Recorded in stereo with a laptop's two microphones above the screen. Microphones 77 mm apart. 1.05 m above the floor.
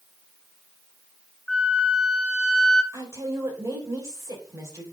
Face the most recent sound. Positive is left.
turn(degrees=-40)  # may be behind; listen again after turning